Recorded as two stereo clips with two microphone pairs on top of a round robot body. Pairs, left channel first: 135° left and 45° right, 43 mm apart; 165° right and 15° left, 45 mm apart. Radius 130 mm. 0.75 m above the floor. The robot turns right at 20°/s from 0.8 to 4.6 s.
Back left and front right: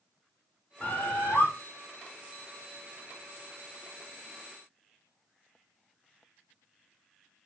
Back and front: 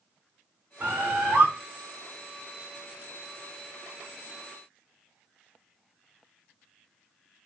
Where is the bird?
70° left, 2.0 m; by 1.5 s 85° left, 2.0 m.